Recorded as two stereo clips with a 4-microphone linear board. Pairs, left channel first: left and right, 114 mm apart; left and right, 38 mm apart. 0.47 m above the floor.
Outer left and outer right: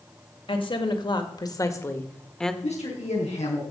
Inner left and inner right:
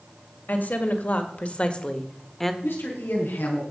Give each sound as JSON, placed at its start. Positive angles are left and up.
{"t": 0.5, "sound": "a woman speaking", "side_deg": 50, "distance_m": 2.5}
{"t": 2.6, "sound": "a man speaking", "side_deg": 75, "distance_m": 5.0}